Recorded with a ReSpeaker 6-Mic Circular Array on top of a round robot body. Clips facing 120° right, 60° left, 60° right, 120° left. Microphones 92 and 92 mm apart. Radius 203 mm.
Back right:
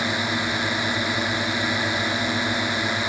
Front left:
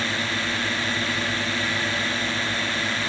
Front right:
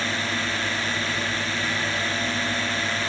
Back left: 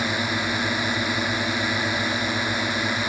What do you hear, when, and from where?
0.0 s a drone: 175° right